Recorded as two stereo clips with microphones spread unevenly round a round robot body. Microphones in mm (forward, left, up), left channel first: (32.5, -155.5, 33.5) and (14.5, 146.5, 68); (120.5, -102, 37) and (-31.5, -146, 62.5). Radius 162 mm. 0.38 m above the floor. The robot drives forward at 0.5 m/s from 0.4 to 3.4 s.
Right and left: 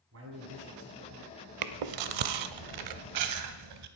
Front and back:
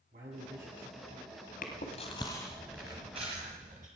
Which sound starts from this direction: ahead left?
Chewing, at 1.6 s.